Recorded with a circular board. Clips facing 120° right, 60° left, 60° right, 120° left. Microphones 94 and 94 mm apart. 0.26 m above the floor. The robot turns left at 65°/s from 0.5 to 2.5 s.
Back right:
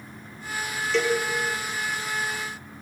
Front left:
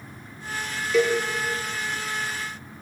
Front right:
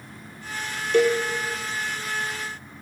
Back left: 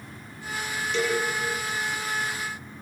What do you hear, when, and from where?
0.9 s a cowbell: 25° right, 2.5 m; by 1.2 s 40° right, 2.5 m